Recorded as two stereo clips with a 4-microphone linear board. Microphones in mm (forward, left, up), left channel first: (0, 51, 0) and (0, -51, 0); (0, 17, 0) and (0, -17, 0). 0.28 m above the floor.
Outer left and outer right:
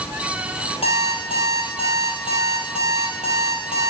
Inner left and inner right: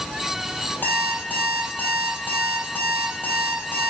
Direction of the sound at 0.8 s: 70° left (ahead or behind).